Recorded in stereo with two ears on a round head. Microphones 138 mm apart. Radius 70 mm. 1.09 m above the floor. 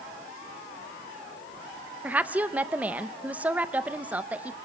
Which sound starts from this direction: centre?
A woman speaking, at 2.0 s.